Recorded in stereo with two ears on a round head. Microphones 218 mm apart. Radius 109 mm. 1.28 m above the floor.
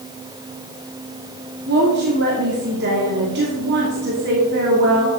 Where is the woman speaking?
45° right (ahead or behind), 2.5 m.